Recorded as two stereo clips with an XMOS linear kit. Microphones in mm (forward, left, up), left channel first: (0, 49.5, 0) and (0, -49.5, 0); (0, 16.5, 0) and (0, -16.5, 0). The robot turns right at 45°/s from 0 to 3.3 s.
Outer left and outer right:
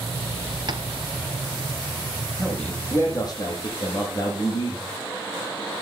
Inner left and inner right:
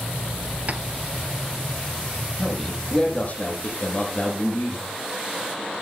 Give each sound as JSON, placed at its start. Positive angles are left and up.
{"t": 0.7, "sound": "tapping", "side_deg": -45, "distance_m": 1.3}
{"t": 2.4, "sound": "a man speaking", "azimuth_deg": 0, "distance_m": 6.0}